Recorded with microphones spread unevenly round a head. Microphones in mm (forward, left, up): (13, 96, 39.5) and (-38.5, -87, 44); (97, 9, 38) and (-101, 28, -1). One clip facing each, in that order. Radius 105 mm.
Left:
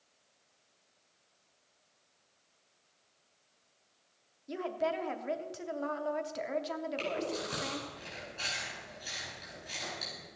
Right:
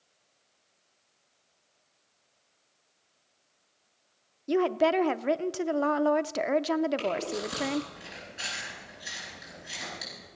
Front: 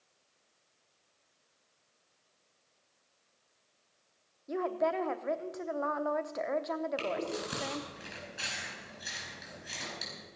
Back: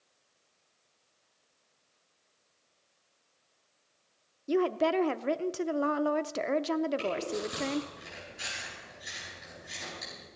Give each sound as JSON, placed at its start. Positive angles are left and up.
{"t": 4.5, "sound": "a woman speaking", "azimuth_deg": -130, "distance_m": 0.7}
{"t": 7.0, "sound": "chewing", "azimuth_deg": -25, "distance_m": 9.0}